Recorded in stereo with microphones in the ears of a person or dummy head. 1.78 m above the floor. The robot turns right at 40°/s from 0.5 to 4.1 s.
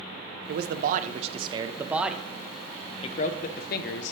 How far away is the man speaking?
About 0.6 m.